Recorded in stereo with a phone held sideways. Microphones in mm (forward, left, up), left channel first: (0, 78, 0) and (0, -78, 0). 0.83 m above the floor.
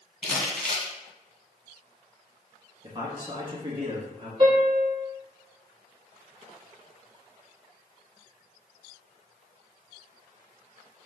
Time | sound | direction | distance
0.2 | crumpling | 5° left (ahead or behind) | 1.6 m
2.8 | a man speaking | 25° right (ahead or behind) | 1.6 m
4.4 | a piano | 30° right (ahead or behind) | 1.3 m